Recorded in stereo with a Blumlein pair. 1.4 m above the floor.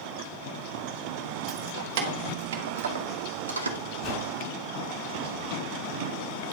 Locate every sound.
1.5 s keys jangling: 45° right, 3 m; by 3.8 s 75° right, 2.0 m
4.0 s a whoosh: 40° left, 5 m